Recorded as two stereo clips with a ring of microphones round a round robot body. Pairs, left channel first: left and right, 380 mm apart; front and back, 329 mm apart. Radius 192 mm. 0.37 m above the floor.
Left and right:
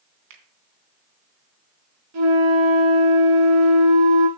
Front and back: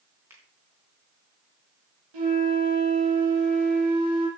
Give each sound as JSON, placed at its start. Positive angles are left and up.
{"t": 0.3, "sound": "a finger snap", "azimuth_deg": -95, "distance_m": 3.5}
{"t": 2.1, "sound": "a flute", "azimuth_deg": -140, "distance_m": 5.5}